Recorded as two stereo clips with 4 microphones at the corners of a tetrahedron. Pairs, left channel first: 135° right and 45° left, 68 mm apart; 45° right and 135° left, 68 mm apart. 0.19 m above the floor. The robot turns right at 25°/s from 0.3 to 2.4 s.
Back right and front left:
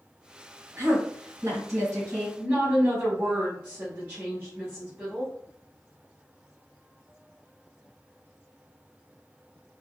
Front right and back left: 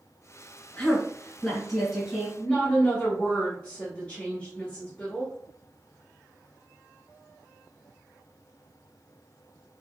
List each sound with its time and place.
0.8 s a woman speaking: 20° left, 1.6 m; by 2.3 s 60° left, 1.6 m
2.4 s a woman speaking: 5° left, 1.1 m